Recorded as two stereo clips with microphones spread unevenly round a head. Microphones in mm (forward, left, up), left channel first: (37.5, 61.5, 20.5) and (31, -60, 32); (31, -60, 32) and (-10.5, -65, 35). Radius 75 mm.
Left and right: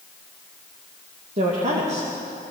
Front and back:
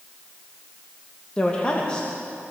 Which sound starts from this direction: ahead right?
A woman speaking, at 1.4 s.